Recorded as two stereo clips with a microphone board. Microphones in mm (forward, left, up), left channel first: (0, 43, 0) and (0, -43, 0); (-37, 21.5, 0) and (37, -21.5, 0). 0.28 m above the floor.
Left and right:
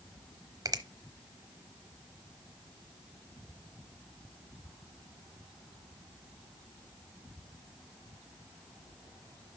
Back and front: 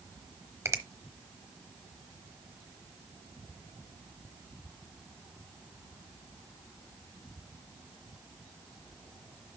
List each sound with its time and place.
0.7 s a finger snap: 70° right, 0.9 m